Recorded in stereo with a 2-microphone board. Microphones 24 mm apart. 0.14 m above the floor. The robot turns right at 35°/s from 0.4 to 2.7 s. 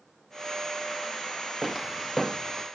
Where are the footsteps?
5° right (ahead or behind), 2.5 m; by 2.6 s 15° left (ahead or behind), 2.5 m.